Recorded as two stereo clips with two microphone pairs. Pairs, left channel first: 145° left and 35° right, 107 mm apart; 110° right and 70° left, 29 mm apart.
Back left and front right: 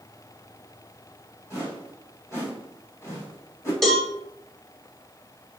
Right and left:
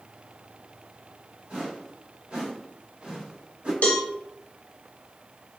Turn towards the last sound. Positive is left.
turn(degrees=-130)